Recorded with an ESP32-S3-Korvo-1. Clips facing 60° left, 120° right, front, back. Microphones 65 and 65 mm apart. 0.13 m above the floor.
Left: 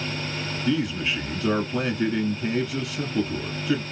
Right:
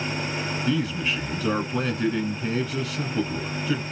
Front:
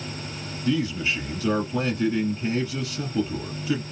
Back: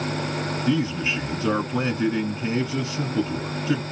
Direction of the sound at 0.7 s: 145° left.